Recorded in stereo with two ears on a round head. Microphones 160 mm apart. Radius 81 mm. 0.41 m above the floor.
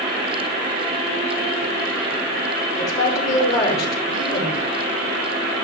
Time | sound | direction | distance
2.8 | a woman speaking | 25° left (ahead or behind) | 4 m